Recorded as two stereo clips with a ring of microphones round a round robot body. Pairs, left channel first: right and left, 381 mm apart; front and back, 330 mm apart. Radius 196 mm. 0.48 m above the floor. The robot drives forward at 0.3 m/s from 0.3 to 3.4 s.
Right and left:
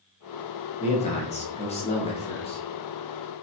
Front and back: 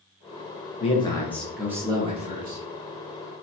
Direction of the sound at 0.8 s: 40° right.